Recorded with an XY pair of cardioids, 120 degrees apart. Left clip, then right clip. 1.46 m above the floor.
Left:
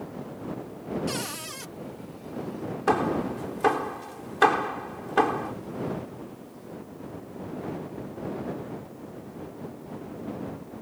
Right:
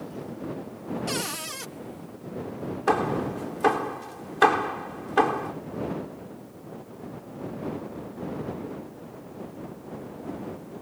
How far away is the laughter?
No laughter in this recording.